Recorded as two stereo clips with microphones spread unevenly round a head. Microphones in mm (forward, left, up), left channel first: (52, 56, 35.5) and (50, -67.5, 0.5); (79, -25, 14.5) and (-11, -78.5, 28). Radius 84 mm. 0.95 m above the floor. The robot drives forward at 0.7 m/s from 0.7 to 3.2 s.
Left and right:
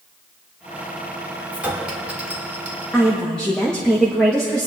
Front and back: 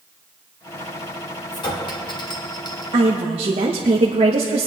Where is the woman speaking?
175° right, 0.9 m.